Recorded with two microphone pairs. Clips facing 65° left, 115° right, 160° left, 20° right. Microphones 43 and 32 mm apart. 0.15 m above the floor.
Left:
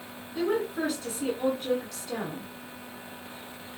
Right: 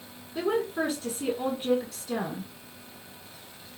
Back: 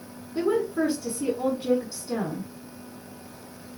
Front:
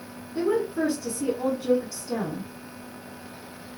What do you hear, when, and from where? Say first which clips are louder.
0.3 s a woman speaking: even, even; 150° right, 1.2 m